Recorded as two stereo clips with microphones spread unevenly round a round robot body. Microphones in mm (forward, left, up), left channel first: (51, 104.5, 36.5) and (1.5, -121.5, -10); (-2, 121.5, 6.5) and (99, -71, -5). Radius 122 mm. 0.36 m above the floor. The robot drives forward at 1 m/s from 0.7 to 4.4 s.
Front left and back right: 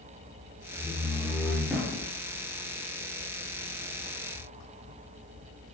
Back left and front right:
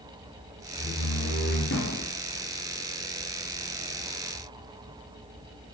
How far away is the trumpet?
I don't hear a trumpet.